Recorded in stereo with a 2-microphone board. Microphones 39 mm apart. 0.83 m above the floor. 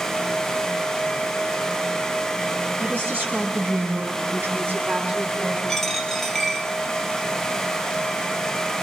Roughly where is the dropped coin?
Centre.